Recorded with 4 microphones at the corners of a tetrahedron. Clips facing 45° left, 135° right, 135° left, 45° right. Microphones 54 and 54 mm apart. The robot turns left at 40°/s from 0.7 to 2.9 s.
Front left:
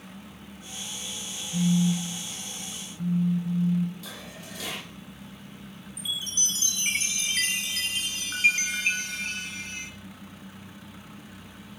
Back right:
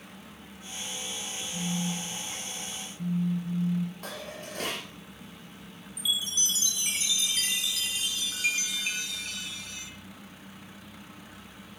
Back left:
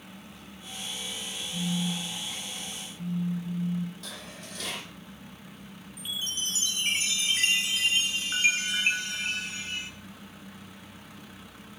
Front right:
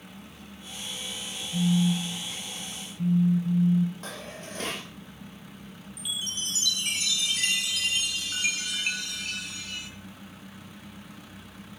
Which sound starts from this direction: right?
Dishes clattering, at 4.0 s.